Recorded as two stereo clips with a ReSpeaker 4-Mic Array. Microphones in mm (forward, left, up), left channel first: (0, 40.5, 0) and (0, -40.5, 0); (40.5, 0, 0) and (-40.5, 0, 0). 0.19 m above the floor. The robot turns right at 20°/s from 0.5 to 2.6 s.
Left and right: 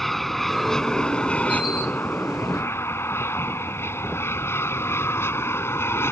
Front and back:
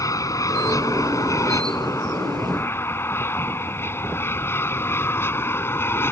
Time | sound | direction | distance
0.0 | an aircraft | 5° left | ?